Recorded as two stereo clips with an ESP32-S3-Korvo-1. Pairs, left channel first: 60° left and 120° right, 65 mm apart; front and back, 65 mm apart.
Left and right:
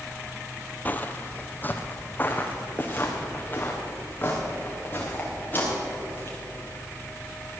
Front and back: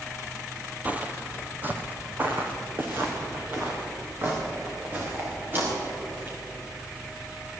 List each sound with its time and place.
0.8 s footsteps: 120° left, 0.7 m